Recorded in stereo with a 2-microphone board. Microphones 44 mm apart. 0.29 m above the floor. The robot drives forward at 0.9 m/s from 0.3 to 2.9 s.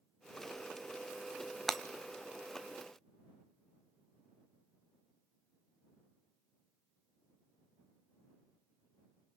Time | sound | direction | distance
1.7 | breaking glass | 5° left (ahead or behind) | 0.9 m